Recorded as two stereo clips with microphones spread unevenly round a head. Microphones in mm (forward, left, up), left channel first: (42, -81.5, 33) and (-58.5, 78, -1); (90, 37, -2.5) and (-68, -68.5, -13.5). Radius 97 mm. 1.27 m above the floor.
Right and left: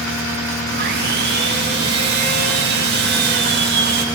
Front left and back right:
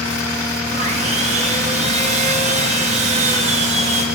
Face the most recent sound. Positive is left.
turn(degrees=160)